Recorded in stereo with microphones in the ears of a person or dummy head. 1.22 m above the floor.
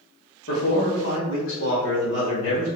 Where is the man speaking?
75° left (ahead or behind), 1.8 m; by 2.7 s 70° left (ahead or behind), 2.5 m.